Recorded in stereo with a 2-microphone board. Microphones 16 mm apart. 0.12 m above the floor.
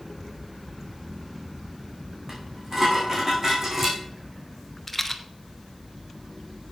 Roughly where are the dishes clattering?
Right.